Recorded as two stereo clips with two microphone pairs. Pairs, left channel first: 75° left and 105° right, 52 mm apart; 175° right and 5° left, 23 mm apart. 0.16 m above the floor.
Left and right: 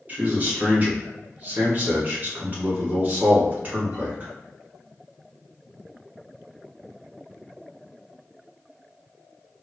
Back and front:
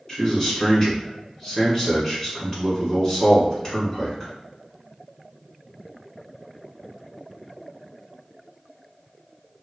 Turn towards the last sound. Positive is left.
turn(degrees=-130)